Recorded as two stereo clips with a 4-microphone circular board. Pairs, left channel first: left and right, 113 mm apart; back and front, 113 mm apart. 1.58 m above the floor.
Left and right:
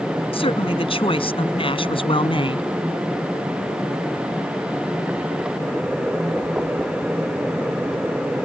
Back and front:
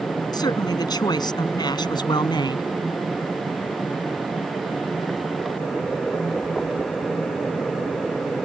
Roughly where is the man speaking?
Behind left.